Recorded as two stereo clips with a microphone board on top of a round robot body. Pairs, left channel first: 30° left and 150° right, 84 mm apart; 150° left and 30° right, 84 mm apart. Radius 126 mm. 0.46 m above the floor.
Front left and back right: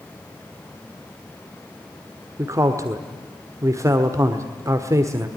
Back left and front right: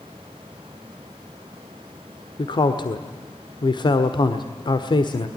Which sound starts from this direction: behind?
A man speaking, at 2.4 s.